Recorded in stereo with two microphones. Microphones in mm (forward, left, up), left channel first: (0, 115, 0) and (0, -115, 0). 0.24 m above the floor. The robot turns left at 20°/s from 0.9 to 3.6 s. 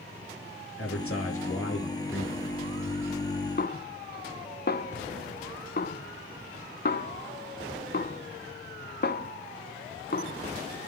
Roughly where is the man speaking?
Left.